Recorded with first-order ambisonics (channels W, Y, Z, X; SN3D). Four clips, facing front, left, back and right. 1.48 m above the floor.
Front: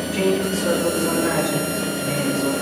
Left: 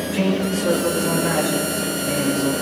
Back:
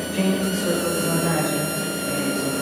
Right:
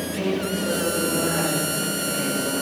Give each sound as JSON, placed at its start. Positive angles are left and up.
{"t": 0.1, "sound": "a man speaking", "azimuth_deg": 25, "distance_m": 6.0}